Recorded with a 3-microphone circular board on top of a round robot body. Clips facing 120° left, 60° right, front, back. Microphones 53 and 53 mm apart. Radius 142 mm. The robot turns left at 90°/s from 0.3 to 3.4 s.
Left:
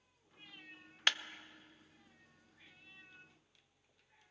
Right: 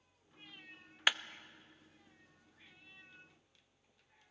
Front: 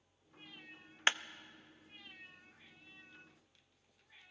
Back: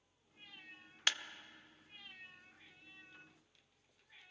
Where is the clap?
5° left, 0.7 m; by 1.2 s 5° right, 0.7 m.